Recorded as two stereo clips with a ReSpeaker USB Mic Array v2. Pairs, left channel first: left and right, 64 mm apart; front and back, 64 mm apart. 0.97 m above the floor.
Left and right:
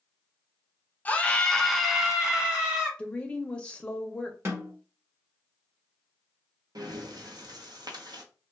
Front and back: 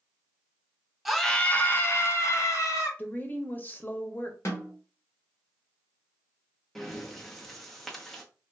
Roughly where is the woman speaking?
Ahead left.